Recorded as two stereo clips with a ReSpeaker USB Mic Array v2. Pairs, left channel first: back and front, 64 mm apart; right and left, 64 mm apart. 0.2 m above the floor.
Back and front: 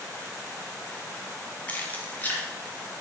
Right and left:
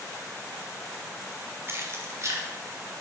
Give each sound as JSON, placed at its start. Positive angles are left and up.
{"t": 1.7, "sound": "keys jangling", "azimuth_deg": 120, "distance_m": 1.2}